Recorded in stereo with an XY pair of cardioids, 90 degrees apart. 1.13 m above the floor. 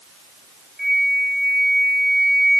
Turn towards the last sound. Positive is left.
turn(degrees=0)